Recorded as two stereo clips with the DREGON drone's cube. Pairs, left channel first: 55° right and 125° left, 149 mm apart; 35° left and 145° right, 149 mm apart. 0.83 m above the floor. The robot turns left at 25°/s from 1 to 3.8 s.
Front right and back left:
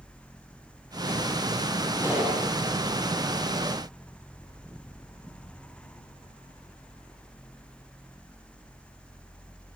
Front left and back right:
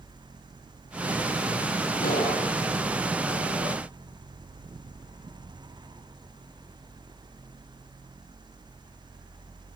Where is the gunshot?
50° left, 9 m; by 2.4 s 40° left, 9 m.